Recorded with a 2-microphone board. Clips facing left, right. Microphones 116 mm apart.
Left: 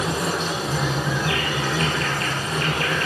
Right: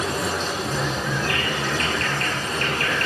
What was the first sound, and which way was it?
An insect, 10° left (ahead or behind).